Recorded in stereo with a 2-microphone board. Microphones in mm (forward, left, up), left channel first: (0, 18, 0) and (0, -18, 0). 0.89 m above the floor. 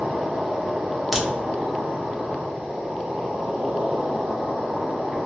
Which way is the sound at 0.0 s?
30° right (ahead or behind).